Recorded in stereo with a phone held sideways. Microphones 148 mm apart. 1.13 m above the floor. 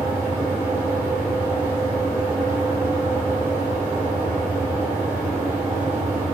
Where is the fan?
10° right (ahead or behind), 1.9 m.